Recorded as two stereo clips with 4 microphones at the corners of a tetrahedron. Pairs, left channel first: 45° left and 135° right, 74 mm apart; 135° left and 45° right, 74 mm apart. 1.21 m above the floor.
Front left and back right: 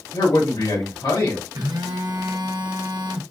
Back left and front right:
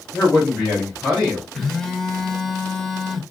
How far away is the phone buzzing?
About 1.0 m.